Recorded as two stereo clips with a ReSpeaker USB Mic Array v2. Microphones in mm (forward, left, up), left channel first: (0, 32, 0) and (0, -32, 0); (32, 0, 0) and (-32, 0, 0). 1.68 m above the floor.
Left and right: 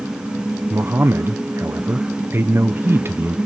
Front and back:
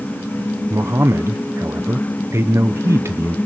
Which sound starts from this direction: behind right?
A man speaking, at 0.7 s.